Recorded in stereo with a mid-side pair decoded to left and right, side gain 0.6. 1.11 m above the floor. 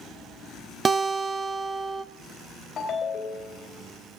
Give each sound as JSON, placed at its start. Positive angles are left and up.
{"t": 0.8, "sound": "a guitar", "azimuth_deg": -30, "distance_m": 0.6}
{"t": 2.8, "sound": "a ringtone", "azimuth_deg": 40, "distance_m": 2.0}